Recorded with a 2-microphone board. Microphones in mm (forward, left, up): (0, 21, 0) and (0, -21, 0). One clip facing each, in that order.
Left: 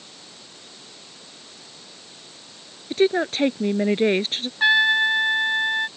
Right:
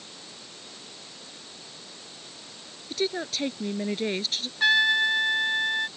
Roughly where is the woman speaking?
Left.